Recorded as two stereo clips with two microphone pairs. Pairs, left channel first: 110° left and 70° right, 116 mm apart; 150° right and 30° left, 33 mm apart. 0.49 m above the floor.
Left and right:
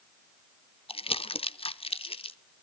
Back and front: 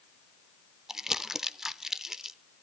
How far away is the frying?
I don't hear frying.